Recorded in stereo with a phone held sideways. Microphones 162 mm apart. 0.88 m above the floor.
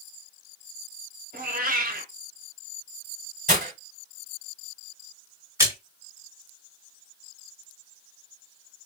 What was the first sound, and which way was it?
A cat meowing, 60° right (ahead or behind).